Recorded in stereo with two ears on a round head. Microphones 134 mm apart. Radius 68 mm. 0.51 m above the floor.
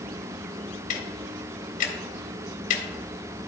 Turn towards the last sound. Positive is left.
turn(degrees=60)  # may be behind; listen again after turning